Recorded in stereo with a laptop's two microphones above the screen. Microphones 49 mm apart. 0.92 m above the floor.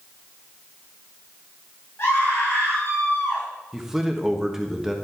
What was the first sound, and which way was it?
A scream, 60° left (ahead or behind).